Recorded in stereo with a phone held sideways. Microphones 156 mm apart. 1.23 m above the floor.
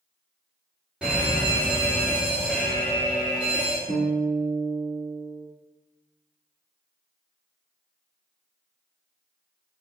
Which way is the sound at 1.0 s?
5° right (ahead or behind).